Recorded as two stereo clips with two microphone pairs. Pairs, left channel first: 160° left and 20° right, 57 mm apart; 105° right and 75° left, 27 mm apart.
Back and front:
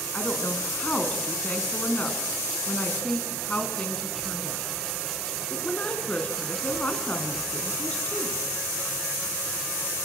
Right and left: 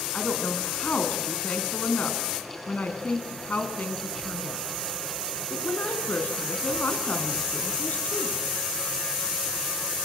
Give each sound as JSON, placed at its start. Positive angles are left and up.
{"t": 0.1, "sound": "a woman speaking", "azimuth_deg": -130, "distance_m": 4.5}